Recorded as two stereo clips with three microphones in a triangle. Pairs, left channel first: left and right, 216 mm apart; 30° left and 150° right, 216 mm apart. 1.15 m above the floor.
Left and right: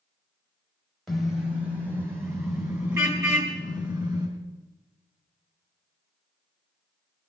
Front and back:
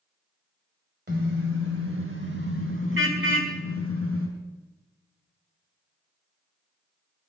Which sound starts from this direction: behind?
A car horn, at 1.1 s.